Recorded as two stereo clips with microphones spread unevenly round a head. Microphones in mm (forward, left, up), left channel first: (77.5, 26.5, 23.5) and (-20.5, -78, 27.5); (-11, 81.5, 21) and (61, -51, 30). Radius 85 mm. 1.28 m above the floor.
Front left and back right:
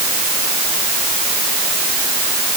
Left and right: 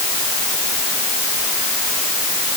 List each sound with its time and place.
Only background noise.